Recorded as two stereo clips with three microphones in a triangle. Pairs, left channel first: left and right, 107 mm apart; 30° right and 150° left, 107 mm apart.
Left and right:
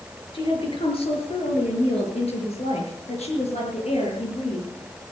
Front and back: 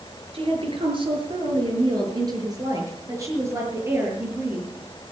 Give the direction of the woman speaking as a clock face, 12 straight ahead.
8 o'clock.